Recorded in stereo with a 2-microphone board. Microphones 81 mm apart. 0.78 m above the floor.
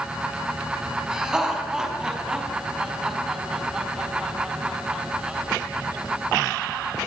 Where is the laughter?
10° right (ahead or behind), 5.5 m.